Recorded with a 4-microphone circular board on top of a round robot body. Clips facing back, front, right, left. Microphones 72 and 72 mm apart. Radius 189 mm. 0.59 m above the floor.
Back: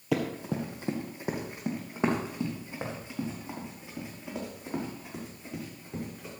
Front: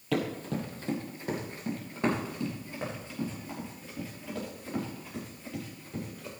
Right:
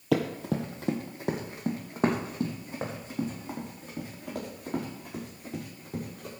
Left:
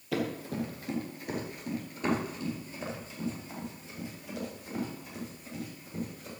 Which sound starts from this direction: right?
Running footsteps, at 0.1 s.